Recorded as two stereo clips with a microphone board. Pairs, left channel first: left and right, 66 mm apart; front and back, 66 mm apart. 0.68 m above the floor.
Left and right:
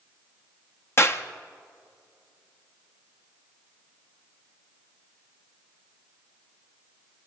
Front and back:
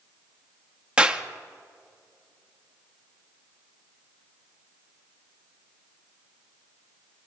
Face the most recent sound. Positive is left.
turn(degrees=115)